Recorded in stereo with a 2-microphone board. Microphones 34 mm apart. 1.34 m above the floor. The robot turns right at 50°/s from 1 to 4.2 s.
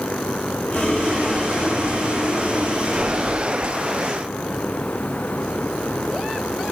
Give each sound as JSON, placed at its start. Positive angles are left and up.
{"t": 0.7, "sound": "boiling", "azimuth_deg": 40, "distance_m": 0.9}